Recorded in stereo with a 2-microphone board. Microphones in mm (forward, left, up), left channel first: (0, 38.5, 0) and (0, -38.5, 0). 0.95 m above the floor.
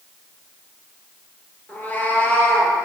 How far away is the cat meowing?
About 1.1 m.